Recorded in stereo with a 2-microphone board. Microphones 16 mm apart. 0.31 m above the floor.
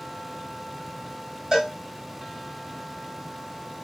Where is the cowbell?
40° right (ahead or behind), 1.9 m.